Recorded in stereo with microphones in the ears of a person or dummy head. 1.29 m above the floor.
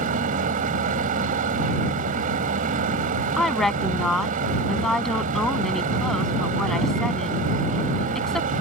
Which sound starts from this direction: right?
A machine running, at 0.0 s.